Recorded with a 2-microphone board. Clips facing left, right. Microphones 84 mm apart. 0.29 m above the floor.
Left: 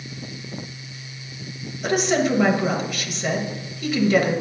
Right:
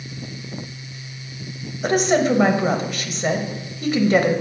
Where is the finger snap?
No finger snap in this recording.